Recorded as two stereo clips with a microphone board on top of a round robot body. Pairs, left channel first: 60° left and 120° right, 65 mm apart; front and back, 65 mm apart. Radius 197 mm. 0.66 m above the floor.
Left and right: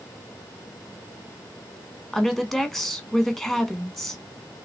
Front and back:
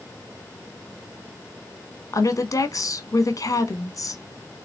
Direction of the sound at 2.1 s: 30° right.